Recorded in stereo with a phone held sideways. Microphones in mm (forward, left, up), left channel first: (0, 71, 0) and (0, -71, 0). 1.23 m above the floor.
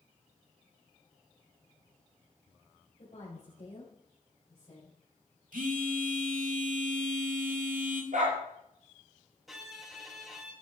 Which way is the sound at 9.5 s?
Centre (ahead or behind).